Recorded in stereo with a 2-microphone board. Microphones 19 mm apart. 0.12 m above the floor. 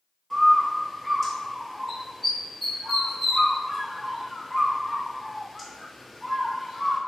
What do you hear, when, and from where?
0.3 s a bird: 10° left (ahead or behind), 1.0 m